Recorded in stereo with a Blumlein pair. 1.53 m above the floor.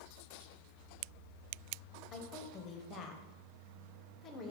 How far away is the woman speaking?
About 0.7 m.